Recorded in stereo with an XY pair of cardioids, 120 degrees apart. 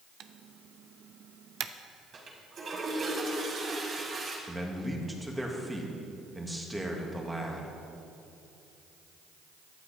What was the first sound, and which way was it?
Typing on a keyboard, 55° right.